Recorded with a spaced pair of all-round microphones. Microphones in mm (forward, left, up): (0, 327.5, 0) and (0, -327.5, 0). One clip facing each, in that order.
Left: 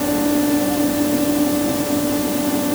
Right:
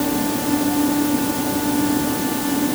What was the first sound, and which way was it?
Only background noise.